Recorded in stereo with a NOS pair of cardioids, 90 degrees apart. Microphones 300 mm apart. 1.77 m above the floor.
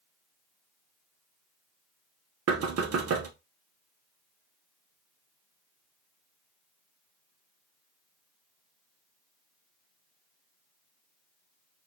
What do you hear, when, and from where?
2.5 s knocking: 55° right, 1.3 m